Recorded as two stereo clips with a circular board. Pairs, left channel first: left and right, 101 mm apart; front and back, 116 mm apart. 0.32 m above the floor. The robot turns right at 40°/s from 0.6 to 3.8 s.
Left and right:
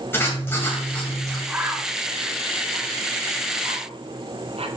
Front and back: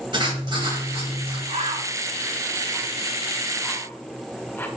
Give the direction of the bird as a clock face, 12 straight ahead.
6 o'clock.